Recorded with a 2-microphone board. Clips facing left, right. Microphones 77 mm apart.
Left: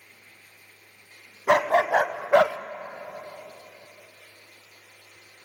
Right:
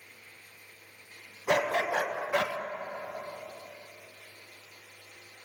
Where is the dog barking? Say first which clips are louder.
Left 7 dB; 75° left (ahead or behind), 1.2 m; by 2.6 s 80° left, 0.6 m.